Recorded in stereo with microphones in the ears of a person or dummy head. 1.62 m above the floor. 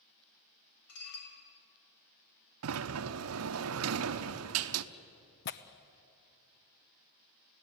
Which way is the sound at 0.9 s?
80° left.